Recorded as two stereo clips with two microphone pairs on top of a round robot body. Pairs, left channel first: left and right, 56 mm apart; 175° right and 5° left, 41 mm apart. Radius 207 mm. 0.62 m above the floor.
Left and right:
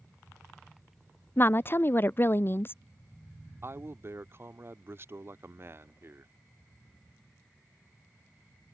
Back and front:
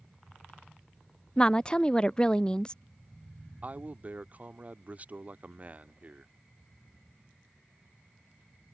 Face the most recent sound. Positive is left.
turn(degrees=-50)